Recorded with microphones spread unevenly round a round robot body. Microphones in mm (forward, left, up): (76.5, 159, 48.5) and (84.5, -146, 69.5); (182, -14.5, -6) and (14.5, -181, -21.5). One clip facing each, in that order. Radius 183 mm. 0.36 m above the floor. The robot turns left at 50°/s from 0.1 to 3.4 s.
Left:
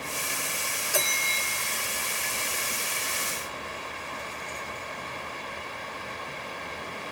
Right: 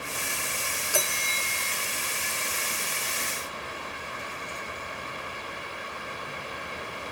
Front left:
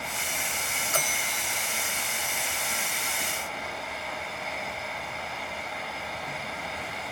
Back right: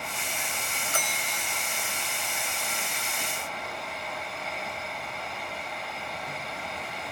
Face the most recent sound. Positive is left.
turn(degrees=-120)